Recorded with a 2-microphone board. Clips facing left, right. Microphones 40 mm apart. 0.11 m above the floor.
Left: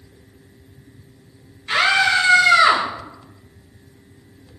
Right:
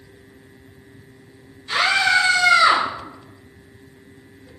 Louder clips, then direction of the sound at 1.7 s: Left 1 dB; 35° left (ahead or behind).